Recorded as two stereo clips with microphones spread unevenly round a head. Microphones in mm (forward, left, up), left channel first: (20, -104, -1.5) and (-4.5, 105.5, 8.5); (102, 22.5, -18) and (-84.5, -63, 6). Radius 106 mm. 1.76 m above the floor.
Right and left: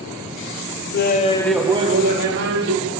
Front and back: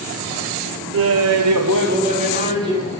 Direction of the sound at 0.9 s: 125° right.